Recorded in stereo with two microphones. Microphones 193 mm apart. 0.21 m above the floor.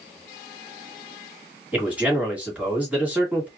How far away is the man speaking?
About 1.7 m.